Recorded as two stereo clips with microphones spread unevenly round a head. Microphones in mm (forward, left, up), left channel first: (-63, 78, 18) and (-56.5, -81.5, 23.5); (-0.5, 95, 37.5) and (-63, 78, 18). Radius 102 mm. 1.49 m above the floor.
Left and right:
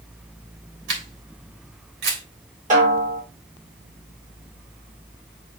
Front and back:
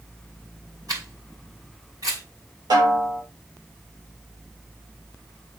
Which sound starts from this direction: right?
A camera shutter, at 0.9 s.